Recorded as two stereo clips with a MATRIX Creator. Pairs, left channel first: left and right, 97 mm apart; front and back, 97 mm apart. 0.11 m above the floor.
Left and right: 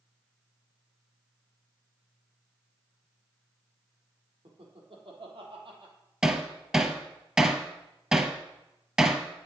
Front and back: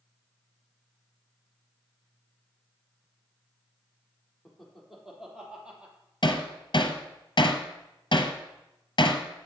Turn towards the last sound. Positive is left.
turn(degrees=-10)